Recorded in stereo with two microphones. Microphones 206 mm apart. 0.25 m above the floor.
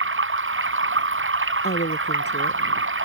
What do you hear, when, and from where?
0.0 s running water: 75° right (ahead or behind)
1.6 s a woman speaking: 55° left (ahead or behind)